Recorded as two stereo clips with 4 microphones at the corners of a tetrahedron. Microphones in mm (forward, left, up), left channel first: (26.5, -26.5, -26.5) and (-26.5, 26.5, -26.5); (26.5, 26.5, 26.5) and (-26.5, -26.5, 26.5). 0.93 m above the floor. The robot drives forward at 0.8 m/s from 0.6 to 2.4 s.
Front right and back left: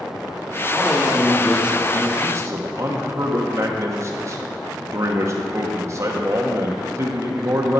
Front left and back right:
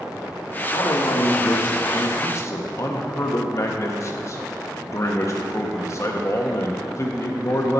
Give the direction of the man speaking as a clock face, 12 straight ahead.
11 o'clock.